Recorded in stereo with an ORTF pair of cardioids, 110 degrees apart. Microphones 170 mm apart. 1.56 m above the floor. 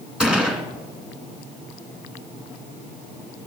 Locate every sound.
0.2 s a gunshot: 5° right, 2.0 m